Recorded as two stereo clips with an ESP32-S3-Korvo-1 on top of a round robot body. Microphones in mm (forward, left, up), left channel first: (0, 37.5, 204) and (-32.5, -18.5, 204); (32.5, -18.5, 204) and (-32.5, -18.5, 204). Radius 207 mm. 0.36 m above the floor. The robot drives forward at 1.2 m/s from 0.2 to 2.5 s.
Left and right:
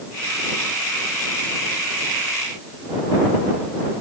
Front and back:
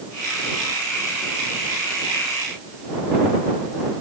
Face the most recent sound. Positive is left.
No sound to turn to.